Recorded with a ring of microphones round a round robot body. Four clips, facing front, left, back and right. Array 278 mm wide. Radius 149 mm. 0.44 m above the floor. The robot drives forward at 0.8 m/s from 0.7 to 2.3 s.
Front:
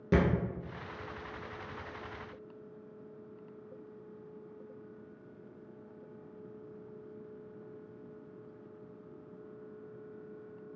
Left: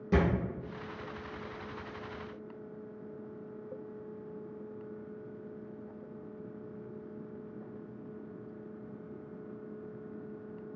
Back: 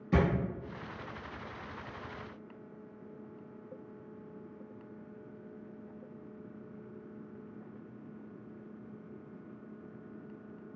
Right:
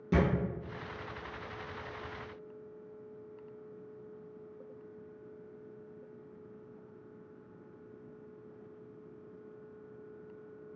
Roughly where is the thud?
Ahead.